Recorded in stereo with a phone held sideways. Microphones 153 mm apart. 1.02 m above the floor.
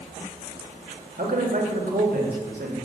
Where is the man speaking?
80° right, 1.6 m.